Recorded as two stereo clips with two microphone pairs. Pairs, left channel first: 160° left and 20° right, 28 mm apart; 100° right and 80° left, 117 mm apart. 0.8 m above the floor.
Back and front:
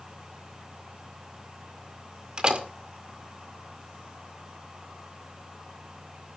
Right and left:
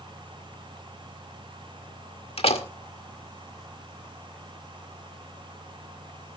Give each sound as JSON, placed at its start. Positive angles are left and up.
{"t": 2.4, "sound": "a door slam", "azimuth_deg": -70, "distance_m": 1.9}